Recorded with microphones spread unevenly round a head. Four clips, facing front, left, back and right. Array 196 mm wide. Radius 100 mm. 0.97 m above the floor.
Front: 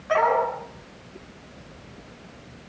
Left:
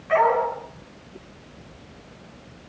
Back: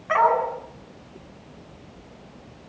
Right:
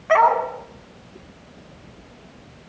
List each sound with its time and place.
0.1 s a dog barking: 90° right, 3.5 m